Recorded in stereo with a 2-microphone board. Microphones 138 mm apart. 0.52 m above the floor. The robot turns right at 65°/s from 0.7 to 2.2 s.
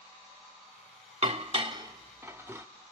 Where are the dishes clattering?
45° right (ahead or behind), 0.8 m; by 2.7 s 15° right (ahead or behind), 0.8 m.